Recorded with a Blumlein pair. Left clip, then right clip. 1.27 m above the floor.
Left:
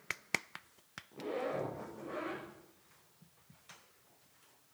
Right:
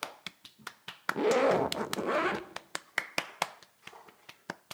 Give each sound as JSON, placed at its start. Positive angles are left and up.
{"t": 1.1, "sound": "a zipper", "azimuth_deg": -40, "distance_m": 2.0}